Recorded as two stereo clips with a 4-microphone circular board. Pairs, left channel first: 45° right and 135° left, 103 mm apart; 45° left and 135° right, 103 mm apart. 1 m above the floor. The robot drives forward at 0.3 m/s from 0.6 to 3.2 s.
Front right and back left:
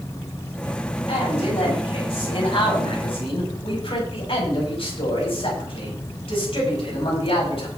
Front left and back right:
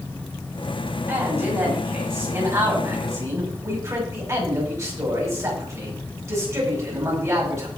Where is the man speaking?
70° right, 6 m; by 7.7 s 75° right, 6 m.